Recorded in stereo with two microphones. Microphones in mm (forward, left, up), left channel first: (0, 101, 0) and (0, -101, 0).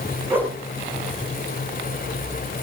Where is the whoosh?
10° right (ahead or behind), 7 m.